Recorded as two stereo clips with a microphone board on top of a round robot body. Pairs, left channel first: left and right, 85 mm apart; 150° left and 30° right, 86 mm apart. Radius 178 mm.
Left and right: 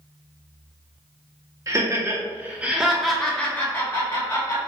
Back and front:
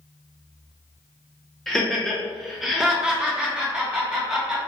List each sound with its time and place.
1.7 s laughter: 125° right, 1.3 m; by 4.6 s 45° left, 1.5 m